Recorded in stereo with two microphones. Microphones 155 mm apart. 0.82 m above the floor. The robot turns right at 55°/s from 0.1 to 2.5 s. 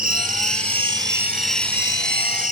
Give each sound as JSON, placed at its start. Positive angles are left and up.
{"t": 0.0, "sound": "an insect", "azimuth_deg": -75, "distance_m": 1.7}